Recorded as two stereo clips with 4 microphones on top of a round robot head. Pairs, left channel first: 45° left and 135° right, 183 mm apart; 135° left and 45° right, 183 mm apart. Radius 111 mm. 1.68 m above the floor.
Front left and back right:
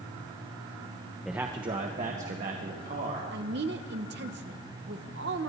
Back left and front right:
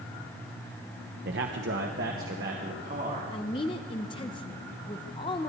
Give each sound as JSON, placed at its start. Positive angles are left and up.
{"t": 1.2, "sound": "a man speaking", "azimuth_deg": -45, "distance_m": 0.6}
{"t": 3.3, "sound": "a woman speaking", "azimuth_deg": -160, "distance_m": 0.8}